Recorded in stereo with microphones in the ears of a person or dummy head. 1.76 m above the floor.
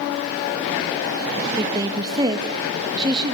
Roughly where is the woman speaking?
Right.